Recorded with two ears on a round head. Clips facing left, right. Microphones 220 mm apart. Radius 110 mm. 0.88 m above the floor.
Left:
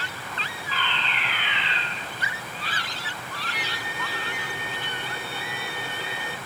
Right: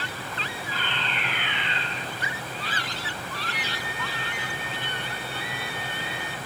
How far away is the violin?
About 1.6 m.